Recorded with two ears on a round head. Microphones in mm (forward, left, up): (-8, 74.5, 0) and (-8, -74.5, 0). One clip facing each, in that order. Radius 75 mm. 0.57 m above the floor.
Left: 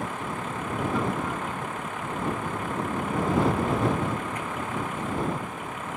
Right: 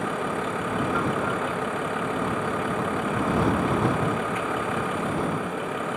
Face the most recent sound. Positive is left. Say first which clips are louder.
# right 5 dB
turn(degrees=-65)  # may be behind; listen again after turning